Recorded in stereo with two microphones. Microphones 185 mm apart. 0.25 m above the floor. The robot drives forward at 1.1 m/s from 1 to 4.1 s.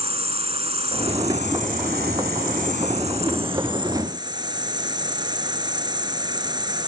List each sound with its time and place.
0.0 s an insect: 35° right (ahead or behind); by 6.9 s 25° right (ahead or behind)